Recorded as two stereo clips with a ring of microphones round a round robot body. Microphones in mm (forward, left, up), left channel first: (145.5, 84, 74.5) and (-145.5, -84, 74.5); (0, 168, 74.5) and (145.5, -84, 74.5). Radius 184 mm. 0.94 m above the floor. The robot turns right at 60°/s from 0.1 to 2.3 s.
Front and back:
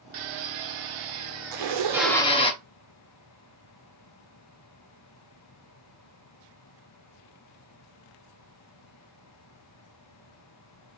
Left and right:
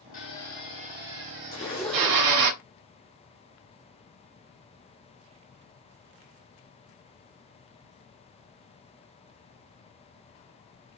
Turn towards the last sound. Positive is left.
turn(degrees=-130)